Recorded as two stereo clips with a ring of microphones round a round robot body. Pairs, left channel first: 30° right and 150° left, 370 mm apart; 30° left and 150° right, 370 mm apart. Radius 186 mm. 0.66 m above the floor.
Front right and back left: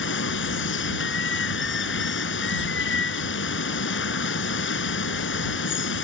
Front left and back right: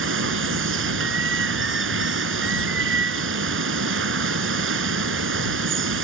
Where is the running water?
90° right.